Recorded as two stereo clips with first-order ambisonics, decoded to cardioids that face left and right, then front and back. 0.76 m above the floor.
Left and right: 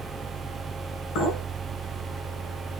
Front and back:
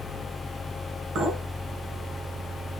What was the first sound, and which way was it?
A clink, 130° left.